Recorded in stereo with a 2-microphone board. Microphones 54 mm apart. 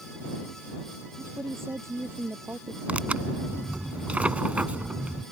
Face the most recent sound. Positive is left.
turn(degrees=-25)  # may be behind; listen again after turning